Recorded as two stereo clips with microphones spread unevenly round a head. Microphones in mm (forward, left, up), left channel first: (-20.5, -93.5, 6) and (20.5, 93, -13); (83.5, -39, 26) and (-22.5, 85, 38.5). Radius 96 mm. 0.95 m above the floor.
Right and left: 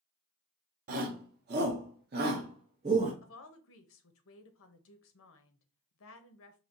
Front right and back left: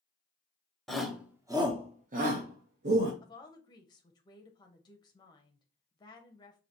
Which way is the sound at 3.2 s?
110° right.